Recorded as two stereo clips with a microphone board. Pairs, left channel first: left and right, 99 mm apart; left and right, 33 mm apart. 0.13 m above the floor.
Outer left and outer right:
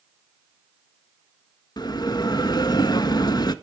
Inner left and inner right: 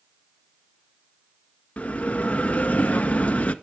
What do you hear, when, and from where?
1.8 s a bell: 45° left (ahead or behind), 0.5 m